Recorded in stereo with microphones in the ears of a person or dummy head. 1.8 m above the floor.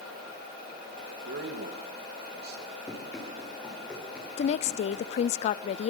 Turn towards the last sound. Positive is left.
turn(degrees=40)  # may be behind; listen again after turning